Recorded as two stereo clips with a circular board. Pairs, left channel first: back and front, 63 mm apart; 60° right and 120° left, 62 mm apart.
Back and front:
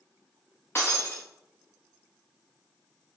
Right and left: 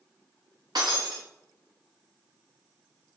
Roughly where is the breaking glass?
Behind left.